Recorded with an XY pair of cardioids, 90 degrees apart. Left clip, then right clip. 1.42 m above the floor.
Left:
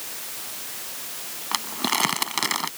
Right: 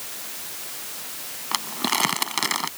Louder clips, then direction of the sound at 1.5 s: Even; 5° right.